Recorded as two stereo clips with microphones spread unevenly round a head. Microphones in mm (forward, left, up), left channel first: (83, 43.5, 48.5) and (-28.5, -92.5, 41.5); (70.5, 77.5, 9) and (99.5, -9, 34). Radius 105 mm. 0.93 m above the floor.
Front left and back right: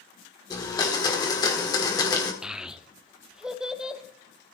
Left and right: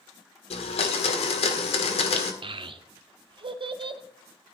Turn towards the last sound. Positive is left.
turn(degrees=-45)